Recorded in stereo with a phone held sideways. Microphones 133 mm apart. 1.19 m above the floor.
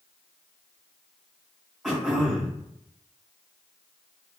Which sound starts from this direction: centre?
Throat clearing, at 1.8 s.